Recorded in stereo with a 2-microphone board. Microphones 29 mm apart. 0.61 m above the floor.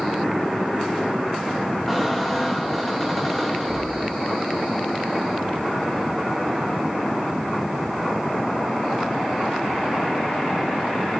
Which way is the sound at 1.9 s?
10° left (ahead or behind).